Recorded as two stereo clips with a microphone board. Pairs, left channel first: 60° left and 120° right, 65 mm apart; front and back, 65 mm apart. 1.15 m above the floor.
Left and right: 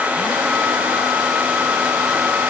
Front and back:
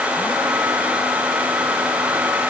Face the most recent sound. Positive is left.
No sound to turn to.